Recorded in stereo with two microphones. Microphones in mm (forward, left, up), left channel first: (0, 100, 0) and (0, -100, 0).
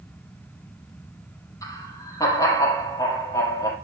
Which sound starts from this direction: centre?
Laughter, at 1.6 s.